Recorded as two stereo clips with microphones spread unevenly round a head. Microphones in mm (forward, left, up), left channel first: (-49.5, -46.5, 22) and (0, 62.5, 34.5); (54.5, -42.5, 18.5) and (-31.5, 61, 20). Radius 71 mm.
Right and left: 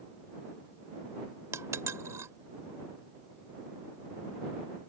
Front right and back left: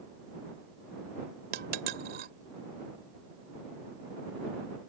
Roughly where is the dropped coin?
Behind left.